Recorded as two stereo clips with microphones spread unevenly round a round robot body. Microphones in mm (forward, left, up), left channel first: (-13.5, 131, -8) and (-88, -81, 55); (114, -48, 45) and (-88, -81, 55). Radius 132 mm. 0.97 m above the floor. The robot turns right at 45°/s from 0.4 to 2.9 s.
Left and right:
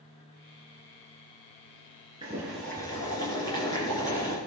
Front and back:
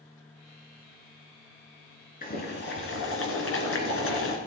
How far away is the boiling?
About 3 m.